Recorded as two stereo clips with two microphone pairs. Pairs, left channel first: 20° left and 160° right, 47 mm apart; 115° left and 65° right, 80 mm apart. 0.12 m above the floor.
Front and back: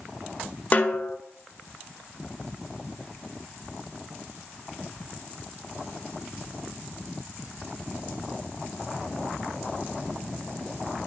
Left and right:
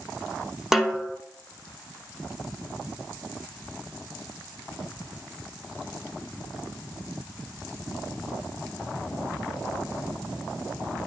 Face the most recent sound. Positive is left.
turn(degrees=15)